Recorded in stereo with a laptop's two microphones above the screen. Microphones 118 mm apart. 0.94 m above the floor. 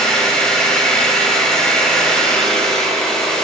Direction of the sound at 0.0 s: 10° left (ahead or behind).